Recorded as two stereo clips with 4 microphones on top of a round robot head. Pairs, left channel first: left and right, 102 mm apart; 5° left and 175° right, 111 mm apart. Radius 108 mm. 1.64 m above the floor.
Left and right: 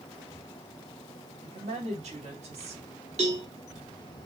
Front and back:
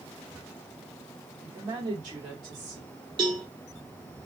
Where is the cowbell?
115° right, 0.9 m.